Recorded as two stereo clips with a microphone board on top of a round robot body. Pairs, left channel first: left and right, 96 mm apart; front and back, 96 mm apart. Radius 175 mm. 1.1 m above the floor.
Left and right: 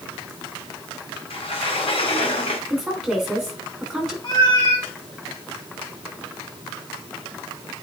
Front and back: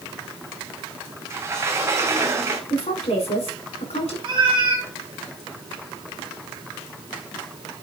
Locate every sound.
1.3 s a sliding door: 120° left, 1.4 m
2.7 s a woman speaking: 5° right, 4.5 m
4.2 s a cat meowing: 140° left, 2 m